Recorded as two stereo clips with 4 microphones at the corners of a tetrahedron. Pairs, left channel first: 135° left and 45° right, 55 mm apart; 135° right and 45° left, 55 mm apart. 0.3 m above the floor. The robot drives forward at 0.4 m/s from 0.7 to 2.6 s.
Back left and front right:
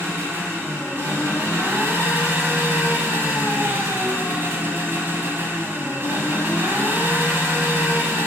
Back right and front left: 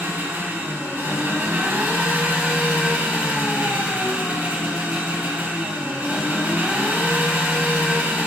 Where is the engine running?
10° right, 2.5 m; by 8.3 s 15° right, 1.6 m.